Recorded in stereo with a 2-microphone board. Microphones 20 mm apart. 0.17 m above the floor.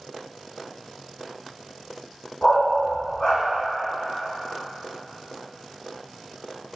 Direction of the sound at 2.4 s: 35° left (ahead or behind).